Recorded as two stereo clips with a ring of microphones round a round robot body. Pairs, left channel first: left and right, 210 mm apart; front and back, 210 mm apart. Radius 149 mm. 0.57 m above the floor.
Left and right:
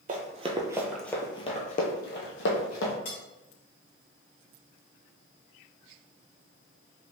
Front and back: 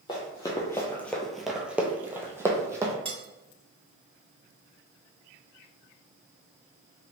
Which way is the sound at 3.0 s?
115° left.